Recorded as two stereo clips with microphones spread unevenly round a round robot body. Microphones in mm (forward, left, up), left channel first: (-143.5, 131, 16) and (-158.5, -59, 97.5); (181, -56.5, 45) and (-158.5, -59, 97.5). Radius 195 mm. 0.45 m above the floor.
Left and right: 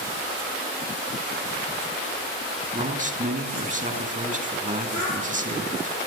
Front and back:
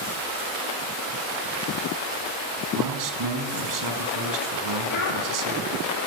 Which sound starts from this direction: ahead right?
A child speaking, at 4.9 s.